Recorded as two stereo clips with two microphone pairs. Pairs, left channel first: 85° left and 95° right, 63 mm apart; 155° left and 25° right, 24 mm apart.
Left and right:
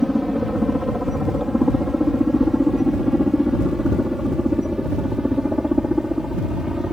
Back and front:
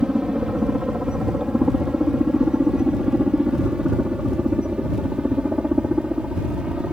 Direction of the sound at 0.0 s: 10° right.